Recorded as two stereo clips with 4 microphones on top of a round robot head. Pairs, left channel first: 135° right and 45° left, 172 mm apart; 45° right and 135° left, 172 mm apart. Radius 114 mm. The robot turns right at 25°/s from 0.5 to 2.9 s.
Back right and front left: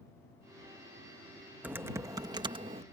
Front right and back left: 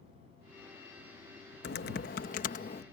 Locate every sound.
1.6 s typing on a keyboard: 35° right; by 2.8 s 5° right